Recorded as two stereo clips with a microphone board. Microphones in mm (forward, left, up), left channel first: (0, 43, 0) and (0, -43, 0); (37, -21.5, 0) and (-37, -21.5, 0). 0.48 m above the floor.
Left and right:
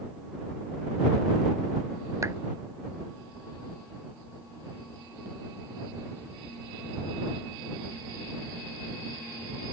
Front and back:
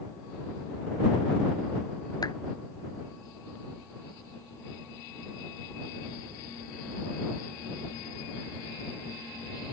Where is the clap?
35° right.